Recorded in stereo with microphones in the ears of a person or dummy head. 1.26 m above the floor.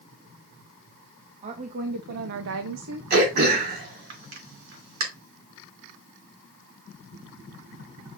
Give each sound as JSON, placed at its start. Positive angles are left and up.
{"t": 1.4, "sound": "a woman speaking", "side_deg": -30, "distance_m": 1.2}
{"t": 3.1, "sound": "throat clearing", "side_deg": -50, "distance_m": 3.0}